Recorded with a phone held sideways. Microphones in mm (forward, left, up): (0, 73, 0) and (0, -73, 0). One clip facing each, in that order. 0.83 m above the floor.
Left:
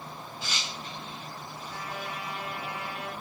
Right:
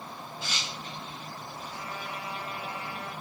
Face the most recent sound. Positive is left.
turn(degrees=85)